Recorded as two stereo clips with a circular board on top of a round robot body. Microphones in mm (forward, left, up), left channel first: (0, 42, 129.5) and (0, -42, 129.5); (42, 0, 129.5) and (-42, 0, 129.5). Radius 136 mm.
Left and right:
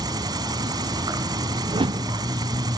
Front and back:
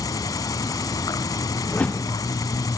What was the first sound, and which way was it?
An insect, 50° right.